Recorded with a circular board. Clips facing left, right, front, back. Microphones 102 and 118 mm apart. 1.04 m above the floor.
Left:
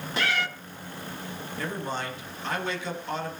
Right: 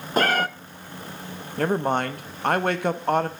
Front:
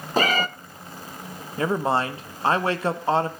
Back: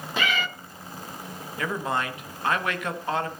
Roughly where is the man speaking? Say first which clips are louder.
Right 10 dB, front 6 dB; ahead right.